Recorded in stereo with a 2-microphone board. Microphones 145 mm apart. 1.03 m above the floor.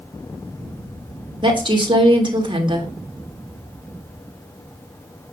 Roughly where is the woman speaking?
Right.